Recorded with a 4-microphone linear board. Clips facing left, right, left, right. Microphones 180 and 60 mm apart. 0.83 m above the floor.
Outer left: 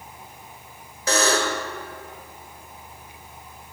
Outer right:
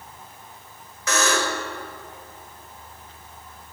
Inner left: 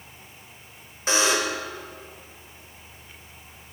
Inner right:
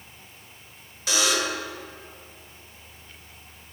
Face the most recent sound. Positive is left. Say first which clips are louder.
# outer left 2 dB, inner left 2 dB
turn(degrees=35)  # may be behind; listen again after turning